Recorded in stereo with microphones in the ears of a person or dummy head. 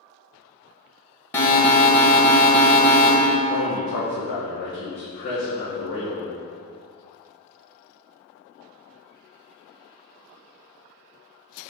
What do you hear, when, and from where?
1.3 s an alarm: 15° left (ahead or behind), 0.8 m
3.5 s a man speaking: 60° left (ahead or behind), 0.8 m